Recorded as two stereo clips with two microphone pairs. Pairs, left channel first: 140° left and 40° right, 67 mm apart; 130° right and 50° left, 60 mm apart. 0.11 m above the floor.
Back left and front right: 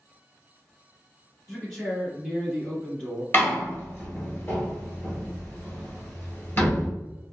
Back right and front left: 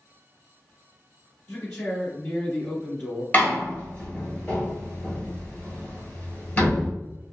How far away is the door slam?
About 1.4 m.